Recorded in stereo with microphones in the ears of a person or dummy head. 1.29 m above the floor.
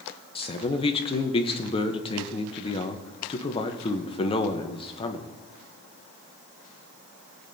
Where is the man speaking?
35° left (ahead or behind), 0.9 m.